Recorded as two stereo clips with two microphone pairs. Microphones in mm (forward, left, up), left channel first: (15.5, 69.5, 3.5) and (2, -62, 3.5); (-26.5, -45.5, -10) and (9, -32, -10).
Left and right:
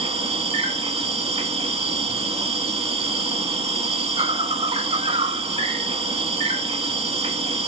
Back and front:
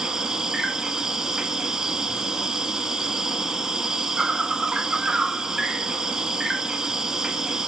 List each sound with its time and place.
0.0 s an insect: 50° right, 0.9 m